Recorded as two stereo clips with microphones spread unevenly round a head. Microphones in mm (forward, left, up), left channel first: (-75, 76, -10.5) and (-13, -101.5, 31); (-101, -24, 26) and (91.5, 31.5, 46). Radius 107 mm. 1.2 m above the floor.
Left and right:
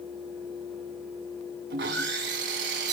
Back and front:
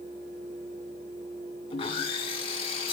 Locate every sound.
1.7 s sawing: 100° right, 1.8 m